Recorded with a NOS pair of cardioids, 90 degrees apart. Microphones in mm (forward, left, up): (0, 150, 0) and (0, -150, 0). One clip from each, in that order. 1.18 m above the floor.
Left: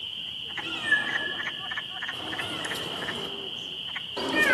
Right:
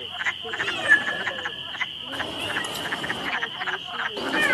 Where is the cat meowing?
50° right, 4.5 m; by 4.5 s straight ahead, 1.3 m.